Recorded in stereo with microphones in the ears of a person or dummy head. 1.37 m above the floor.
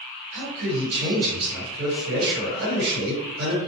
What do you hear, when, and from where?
0.3 s a man speaking: 55° right (ahead or behind), 1.4 m